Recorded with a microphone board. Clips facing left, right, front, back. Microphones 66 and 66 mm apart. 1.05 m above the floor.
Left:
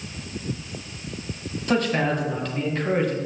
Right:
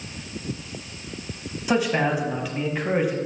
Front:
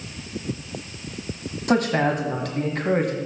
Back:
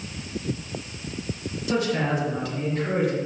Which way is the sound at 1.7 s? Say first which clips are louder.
Right 1 dB, front 4 dB; 10° right.